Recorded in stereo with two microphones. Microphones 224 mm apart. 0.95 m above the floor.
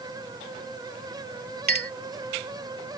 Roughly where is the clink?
Right.